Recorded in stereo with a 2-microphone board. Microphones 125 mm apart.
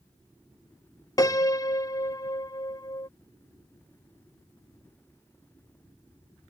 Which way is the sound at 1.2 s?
30° left (ahead or behind).